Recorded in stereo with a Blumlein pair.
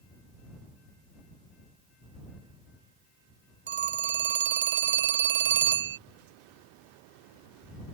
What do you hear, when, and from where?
3.7 s a phone ringing: 60° right